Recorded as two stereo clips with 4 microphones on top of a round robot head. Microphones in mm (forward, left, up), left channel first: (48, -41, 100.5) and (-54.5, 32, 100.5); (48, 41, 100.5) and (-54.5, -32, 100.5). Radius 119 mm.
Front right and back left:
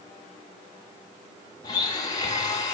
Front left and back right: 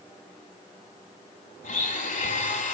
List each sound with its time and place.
1.6 s a blender: 25° left, 4 m